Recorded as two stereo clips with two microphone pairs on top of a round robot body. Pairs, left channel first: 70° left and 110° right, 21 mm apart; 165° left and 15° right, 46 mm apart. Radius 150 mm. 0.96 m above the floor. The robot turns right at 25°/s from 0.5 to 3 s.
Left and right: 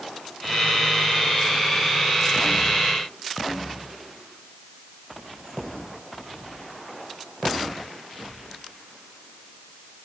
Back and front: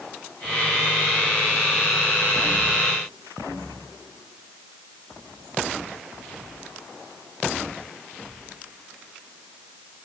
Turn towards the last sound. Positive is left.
No sound to turn to.